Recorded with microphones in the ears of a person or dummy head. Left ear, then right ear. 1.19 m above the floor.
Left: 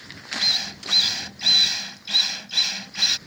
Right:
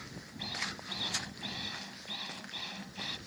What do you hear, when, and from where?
0.4 s a drill: 55° left (ahead or behind)